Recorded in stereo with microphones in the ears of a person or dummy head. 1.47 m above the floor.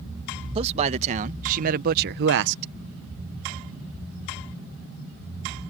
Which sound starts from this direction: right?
A man speaking, at 0.6 s.